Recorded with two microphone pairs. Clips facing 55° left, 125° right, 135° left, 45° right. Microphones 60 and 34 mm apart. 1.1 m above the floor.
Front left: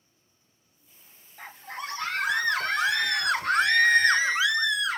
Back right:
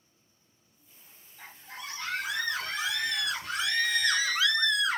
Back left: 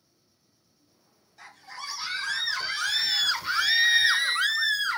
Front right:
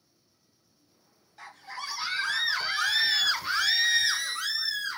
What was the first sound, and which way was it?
A scream, 20° left.